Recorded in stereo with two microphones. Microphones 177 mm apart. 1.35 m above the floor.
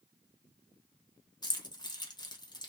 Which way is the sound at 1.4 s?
25° left (ahead or behind).